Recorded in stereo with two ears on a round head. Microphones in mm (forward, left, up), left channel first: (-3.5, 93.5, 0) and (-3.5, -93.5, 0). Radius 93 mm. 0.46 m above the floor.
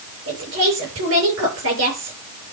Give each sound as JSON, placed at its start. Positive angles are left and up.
{"t": 0.3, "sound": "a woman speaking", "side_deg": -65, "distance_m": 8.0}